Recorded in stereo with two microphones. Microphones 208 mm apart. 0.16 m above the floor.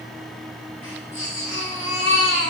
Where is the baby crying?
75° left (ahead or behind), 5 m.